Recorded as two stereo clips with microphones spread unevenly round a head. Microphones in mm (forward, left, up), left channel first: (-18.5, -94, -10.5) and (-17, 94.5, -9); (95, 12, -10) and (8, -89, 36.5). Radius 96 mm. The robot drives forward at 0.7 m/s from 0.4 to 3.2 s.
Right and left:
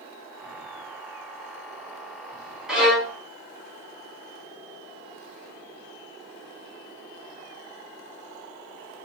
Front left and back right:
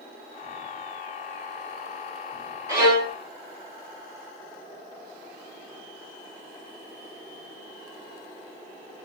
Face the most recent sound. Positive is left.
turn(degrees=175)